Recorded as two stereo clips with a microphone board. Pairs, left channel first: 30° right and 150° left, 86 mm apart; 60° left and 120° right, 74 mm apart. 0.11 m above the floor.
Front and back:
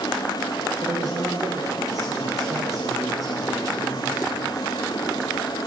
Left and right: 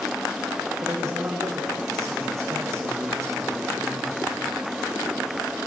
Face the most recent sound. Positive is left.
turn(degrees=-170)